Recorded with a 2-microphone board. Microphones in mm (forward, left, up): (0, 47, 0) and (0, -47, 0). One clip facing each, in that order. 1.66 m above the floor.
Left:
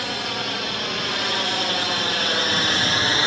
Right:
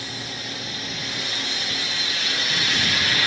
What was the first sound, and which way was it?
A drone, 75° left (ahead or behind).